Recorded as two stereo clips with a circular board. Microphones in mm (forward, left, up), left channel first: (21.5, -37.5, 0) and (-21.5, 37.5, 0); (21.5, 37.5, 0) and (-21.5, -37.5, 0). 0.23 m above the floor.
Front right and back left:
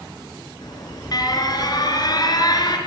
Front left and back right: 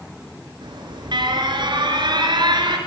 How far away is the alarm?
About 4.5 m.